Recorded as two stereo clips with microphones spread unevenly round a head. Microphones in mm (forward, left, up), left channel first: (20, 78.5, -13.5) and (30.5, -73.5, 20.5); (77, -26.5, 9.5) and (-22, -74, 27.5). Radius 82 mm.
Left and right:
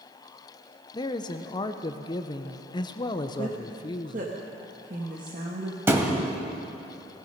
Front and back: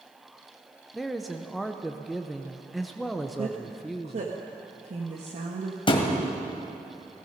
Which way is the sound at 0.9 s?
105° left.